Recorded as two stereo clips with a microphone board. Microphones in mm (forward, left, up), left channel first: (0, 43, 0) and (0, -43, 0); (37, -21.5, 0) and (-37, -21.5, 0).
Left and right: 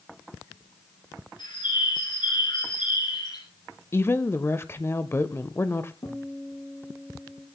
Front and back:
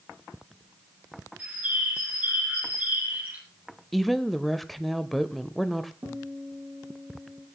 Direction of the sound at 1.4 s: 110° left.